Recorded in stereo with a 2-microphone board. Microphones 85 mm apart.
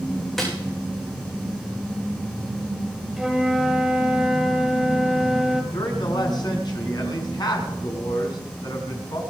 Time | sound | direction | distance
0.4 | a snare drum | centre (ahead or behind) | 6.5 m
3.2 | a flute | 5° right (ahead or behind) | 2.0 m
5.7 | a man speaking | 55° left (ahead or behind) | 4.5 m